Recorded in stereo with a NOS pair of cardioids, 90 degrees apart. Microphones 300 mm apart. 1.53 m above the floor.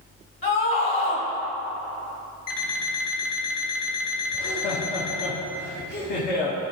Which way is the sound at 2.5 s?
55° left.